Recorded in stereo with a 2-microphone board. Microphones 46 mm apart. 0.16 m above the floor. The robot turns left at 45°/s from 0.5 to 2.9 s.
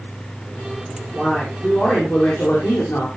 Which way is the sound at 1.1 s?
165° right.